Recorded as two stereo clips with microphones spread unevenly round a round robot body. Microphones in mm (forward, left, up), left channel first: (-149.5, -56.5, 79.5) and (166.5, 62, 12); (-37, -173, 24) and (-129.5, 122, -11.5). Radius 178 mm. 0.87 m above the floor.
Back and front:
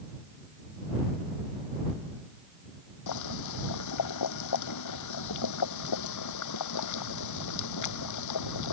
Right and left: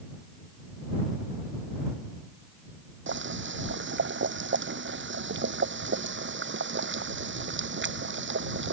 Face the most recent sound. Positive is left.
turn(degrees=160)